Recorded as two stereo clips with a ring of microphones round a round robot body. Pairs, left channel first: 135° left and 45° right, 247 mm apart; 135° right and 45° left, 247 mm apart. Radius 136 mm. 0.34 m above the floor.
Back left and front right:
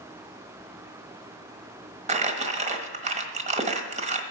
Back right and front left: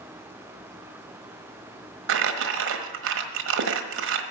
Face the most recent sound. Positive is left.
turn(degrees=15)